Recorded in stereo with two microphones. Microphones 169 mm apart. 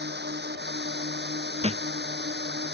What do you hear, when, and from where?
0.0 s a drone: 85° right
1.6 s a thud: 40° right (ahead or behind)